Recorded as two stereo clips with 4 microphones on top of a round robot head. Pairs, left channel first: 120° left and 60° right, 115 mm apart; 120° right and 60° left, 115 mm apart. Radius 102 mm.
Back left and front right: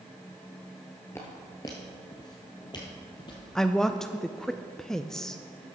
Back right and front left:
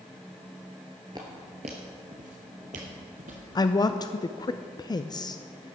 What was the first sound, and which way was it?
Footsteps, 70° left.